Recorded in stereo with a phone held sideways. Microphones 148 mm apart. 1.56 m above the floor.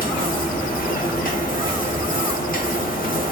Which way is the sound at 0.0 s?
75° left (ahead or behind).